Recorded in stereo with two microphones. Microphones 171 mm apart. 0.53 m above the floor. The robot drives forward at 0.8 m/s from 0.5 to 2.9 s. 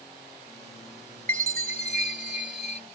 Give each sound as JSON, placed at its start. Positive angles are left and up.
{"t": 1.3, "sound": "a chime", "side_deg": -45}